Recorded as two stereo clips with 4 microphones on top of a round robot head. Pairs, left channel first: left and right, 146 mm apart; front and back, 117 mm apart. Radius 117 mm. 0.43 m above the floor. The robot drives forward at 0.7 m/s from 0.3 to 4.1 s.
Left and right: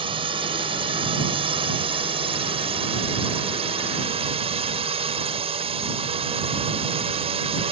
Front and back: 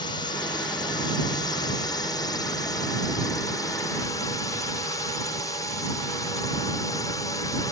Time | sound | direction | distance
0.0 | a drone | 45° right | ?